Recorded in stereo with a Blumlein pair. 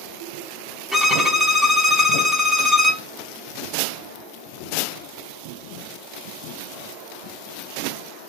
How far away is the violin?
About 0.7 m.